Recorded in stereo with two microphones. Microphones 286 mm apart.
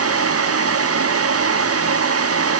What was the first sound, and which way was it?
Only background noise.